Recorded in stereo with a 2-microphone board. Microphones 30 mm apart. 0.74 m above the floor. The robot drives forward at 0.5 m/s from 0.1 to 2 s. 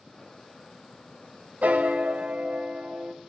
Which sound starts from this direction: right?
A piano, at 1.6 s.